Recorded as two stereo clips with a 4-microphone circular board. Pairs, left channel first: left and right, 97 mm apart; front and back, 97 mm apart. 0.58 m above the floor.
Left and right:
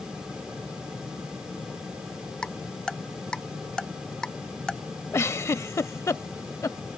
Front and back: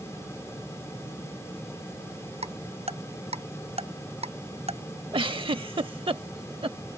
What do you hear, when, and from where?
2.4 s ticking: 170° left
5.1 s a giggle: 150° left